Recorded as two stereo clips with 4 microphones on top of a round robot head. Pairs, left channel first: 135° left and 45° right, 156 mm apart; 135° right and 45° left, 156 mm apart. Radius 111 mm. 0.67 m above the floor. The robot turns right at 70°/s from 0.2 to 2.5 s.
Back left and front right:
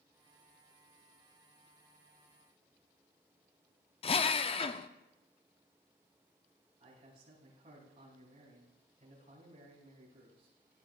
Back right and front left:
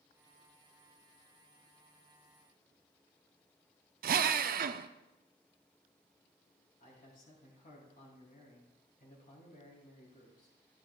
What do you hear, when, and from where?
4.0 s a drill: 80° left, 0.5 m
6.8 s a man speaking: 100° right, 6.5 m